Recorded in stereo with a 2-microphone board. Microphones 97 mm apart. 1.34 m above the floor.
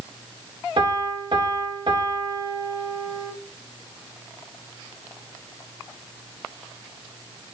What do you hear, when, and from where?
0.8 s a piano: 50° right (ahead or behind), 2 m